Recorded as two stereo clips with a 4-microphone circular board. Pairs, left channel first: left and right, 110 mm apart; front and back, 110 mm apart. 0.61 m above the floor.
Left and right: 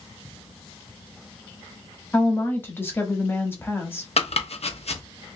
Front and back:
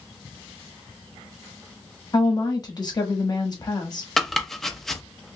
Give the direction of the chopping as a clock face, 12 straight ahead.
9 o'clock.